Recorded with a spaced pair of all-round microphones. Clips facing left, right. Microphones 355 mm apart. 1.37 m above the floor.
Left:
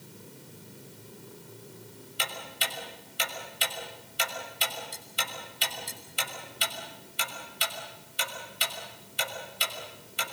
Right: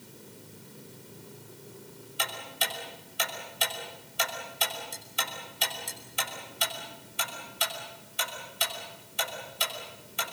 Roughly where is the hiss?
No hiss in this recording.